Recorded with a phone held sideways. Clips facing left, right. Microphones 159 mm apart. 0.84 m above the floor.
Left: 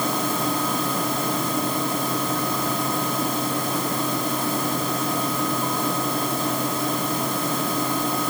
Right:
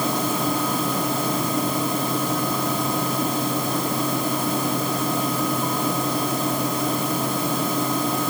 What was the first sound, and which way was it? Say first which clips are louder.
A fan: right 1 dB; 5° right (ahead or behind).